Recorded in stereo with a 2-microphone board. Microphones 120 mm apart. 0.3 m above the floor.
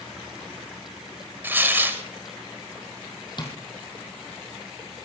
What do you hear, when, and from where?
1.4 s tearing paper: 20° right (ahead or behind), 1.4 m
3.4 s tapping: 40° left (ahead or behind), 2.5 m